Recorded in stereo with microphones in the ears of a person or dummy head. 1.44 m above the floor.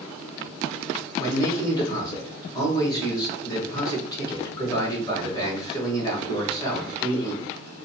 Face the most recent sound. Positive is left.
turn(degrees=25)  # may be behind; listen again after turning